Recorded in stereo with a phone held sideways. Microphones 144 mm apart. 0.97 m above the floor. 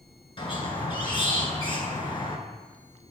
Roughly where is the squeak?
Left.